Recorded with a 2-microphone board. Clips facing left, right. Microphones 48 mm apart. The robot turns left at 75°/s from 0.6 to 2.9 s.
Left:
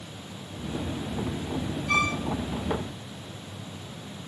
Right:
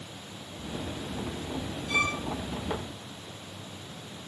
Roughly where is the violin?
Left.